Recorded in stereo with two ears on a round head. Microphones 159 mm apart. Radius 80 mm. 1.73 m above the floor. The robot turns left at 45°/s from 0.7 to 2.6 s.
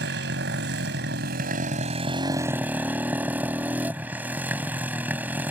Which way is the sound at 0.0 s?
85° right.